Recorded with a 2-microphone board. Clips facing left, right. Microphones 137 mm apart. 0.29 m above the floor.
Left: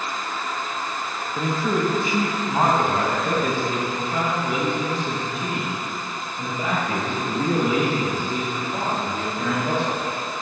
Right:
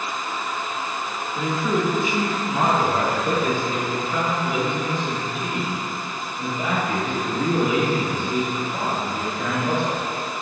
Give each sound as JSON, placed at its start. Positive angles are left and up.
{"t": 1.4, "sound": "a man speaking", "side_deg": 40, "distance_m": 1.2}